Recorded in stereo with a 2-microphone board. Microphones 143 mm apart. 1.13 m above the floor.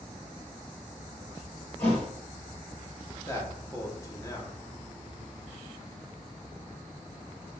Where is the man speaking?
20° left (ahead or behind), 1.1 m.